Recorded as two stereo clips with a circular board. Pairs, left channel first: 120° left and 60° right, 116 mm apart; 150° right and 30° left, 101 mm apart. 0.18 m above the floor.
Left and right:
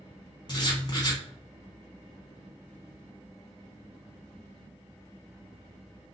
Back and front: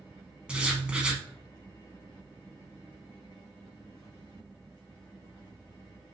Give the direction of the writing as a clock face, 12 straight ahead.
8 o'clock.